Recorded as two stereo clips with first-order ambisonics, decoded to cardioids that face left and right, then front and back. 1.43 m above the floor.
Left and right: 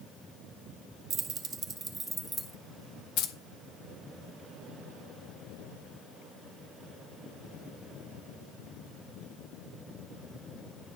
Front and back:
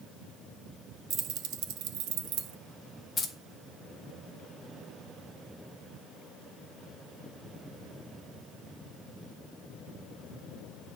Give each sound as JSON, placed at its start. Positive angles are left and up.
{"t": 1.1, "sound": "keys jangling", "azimuth_deg": -135, "distance_m": 0.9}
{"t": 3.2, "sound": "keys jangling", "azimuth_deg": 65, "distance_m": 1.1}